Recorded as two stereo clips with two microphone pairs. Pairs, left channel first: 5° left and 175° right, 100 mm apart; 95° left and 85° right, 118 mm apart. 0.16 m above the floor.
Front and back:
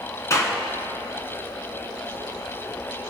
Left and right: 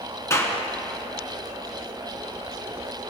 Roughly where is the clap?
Ahead left.